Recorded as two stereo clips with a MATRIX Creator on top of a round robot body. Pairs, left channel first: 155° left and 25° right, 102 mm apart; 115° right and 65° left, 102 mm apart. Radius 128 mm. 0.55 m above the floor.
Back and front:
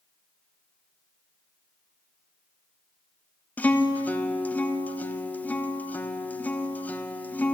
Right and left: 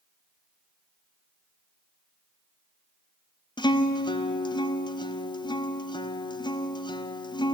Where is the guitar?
130° right, 1.5 m.